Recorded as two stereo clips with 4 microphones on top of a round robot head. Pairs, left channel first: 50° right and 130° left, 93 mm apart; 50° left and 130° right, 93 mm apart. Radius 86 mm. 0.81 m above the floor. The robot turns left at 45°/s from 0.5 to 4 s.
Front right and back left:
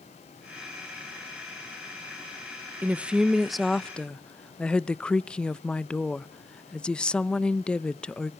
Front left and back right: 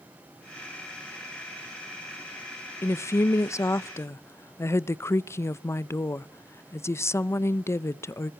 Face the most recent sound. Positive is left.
turn(degrees=25)